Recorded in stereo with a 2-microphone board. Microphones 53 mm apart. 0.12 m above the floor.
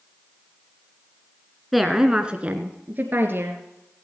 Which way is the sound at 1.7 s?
Centre (ahead or behind).